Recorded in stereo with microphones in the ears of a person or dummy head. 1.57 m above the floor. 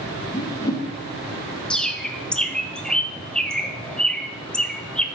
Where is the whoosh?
20° left (ahead or behind), 1.1 m.